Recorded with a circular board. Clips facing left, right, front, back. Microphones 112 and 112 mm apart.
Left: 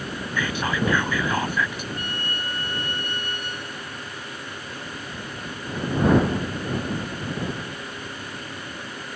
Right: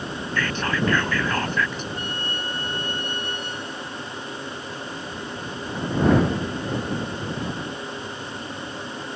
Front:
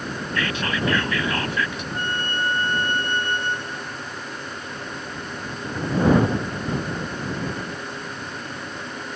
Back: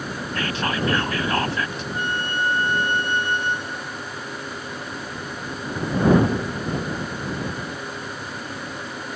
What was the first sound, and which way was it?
Whispering, 165° left.